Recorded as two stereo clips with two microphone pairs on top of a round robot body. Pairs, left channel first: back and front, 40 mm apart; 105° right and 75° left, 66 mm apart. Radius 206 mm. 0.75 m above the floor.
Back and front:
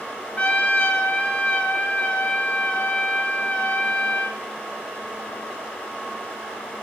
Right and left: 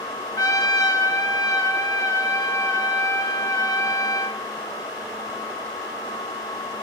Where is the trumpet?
130° right, 2.5 m.